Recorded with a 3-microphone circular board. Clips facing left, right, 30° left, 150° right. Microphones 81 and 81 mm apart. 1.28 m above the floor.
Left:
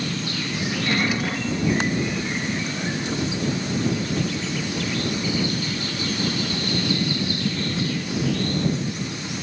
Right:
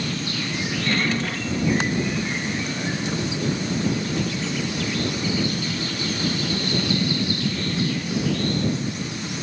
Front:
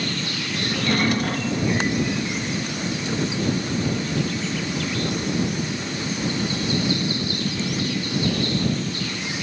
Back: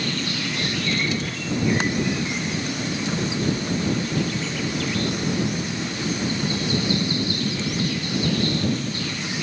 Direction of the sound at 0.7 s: 15° left.